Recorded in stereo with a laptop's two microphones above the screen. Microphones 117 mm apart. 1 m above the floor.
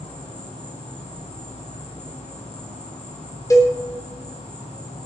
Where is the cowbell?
25° left (ahead or behind), 3.5 m.